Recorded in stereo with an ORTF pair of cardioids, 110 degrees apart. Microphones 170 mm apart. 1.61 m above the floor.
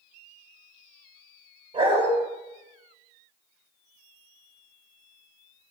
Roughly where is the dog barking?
Ahead right.